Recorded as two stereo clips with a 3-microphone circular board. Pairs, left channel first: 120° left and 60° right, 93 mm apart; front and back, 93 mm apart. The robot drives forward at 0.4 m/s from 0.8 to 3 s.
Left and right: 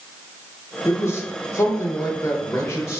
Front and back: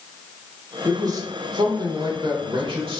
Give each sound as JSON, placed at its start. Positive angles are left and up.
{"t": 0.8, "sound": "a man speaking", "azimuth_deg": 165, "distance_m": 0.7}